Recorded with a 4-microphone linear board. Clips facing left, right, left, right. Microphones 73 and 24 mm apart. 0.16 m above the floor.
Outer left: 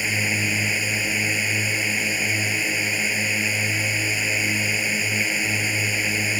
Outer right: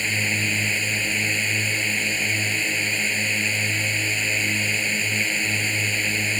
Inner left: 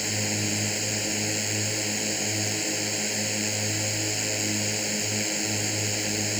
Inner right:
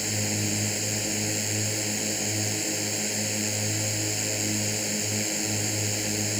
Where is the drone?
10° left (ahead or behind).